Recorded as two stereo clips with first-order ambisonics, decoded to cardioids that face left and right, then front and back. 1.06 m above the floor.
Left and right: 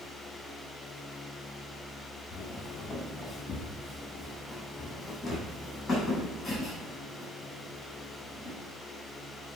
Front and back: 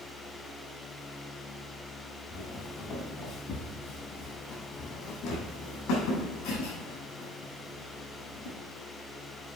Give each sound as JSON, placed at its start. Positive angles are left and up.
{"t": 2.3, "sound": "footsteps", "azimuth_deg": 30, "distance_m": 1.7}